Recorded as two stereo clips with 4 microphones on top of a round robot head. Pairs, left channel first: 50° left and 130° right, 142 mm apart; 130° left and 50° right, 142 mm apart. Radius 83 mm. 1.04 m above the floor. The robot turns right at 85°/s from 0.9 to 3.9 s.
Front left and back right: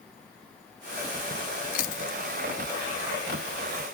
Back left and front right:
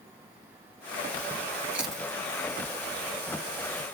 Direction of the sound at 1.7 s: 30° left.